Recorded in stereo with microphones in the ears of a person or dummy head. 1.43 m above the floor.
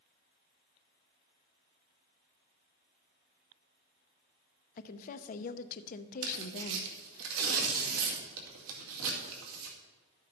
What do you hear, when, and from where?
4.8 s a woman speaking: 50° left (ahead or behind), 0.7 m
6.2 s tearing paper: 85° right, 2.5 m